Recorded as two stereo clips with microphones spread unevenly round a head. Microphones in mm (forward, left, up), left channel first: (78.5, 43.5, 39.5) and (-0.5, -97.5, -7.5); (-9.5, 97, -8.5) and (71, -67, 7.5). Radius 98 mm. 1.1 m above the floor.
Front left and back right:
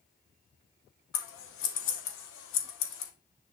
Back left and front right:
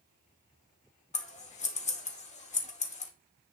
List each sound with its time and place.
1.1 s scissors: 65° left, 2 m